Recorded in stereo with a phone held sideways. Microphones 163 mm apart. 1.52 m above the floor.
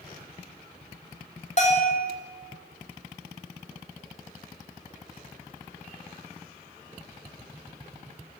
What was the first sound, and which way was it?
A bell, 45° left (ahead or behind).